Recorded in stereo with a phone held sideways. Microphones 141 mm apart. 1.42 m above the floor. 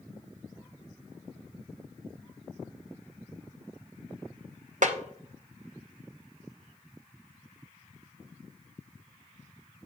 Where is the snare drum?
65° right (ahead or behind), 0.8 m.